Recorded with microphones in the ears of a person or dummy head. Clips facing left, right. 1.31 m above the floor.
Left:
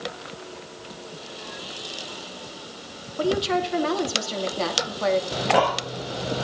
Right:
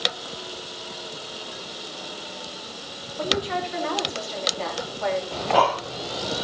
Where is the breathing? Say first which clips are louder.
Even; 25° left (ahead or behind), 1.6 m.